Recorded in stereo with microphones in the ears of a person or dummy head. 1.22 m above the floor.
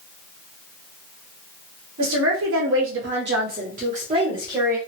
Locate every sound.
2.0 s a woman speaking: 65° right (ahead or behind), 1.3 m; by 4.8 s 10° right (ahead or behind), 1.0 m